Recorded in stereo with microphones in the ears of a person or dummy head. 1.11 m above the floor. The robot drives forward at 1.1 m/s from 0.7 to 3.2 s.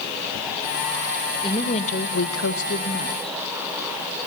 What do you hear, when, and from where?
1.4 s a woman speaking: 25° left (ahead or behind), 1.2 m; by 3.4 s 30° left (ahead or behind), 1.1 m